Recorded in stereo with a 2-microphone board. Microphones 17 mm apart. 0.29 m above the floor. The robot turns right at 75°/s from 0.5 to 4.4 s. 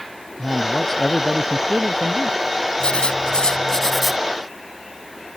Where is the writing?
80° left; by 4.2 s 175° right.